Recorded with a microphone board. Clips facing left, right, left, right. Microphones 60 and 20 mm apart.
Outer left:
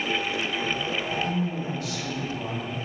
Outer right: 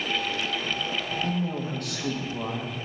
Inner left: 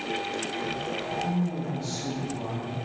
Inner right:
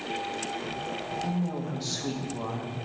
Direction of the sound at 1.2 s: 55° right (ahead or behind).